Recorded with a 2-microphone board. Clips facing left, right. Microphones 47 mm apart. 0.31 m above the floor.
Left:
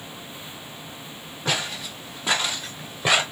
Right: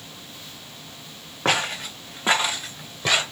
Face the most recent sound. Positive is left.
turn(degrees=25)  # may be behind; listen again after turning